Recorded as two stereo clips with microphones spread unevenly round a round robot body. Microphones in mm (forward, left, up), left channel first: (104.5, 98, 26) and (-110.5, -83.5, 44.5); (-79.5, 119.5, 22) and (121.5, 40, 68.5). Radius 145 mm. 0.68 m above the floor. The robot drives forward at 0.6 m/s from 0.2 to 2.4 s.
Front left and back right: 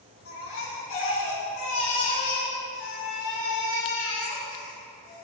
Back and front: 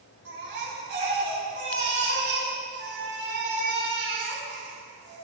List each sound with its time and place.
0.2 s a baby crying: 5° right, 5 m